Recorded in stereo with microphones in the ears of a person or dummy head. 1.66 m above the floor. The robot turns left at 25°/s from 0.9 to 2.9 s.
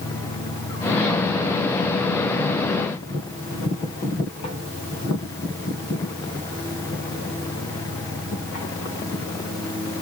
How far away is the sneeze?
I don't hear a sneeze.